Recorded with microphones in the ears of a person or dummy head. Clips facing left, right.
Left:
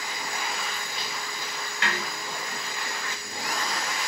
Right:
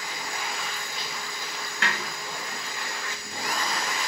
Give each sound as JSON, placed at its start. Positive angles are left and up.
{"t": 1.8, "sound": "a snare drum", "side_deg": -55, "distance_m": 0.7}